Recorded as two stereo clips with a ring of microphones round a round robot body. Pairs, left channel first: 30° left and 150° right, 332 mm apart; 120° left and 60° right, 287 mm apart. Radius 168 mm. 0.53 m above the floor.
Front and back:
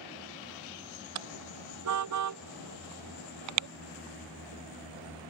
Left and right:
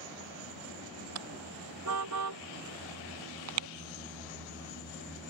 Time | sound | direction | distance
1.1 | a car horn | 105° right | ?